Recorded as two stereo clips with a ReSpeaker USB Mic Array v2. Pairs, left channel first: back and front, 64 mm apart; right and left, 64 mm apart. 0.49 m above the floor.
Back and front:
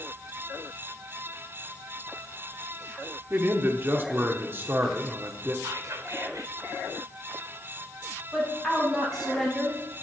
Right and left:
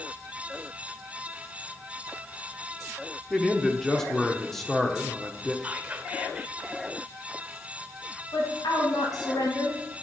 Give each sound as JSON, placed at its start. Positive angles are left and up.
{"t": 3.3, "sound": "a man speaking", "azimuth_deg": -10, "distance_m": 0.9}
{"t": 5.6, "sound": "whispering", "azimuth_deg": 20, "distance_m": 2.0}
{"t": 8.3, "sound": "a woman speaking", "azimuth_deg": -95, "distance_m": 4.0}